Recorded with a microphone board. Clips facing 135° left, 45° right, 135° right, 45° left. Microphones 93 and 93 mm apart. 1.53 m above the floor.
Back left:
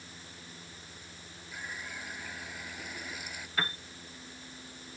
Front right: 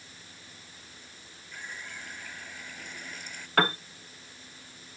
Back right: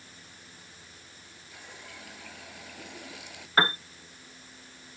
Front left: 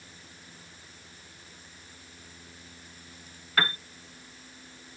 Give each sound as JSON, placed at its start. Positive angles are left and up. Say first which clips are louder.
{"t": 1.5, "sound": "a running tap", "louder": "even, back right 5 dB", "azimuth_deg": -140}
{"t": 3.6, "sound": "a piano", "louder": "front right 10 dB, back right 3 dB", "azimuth_deg": -75}